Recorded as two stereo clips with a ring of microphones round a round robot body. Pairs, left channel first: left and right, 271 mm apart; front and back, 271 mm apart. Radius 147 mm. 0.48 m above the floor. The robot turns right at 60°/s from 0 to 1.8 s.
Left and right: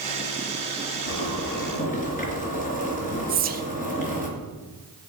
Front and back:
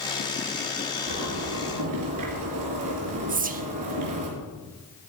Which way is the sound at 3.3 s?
135° right.